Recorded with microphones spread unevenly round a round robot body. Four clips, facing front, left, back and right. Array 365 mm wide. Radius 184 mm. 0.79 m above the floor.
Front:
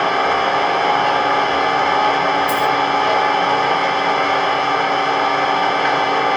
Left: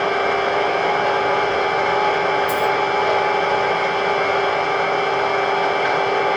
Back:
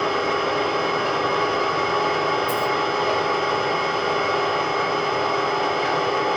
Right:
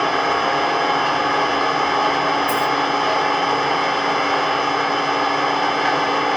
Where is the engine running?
45° right, 2.5 m.